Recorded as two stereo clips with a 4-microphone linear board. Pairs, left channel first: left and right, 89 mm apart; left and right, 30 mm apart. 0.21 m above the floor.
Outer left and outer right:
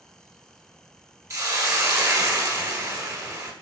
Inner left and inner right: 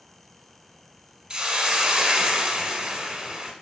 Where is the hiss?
40° right (ahead or behind), 0.6 m.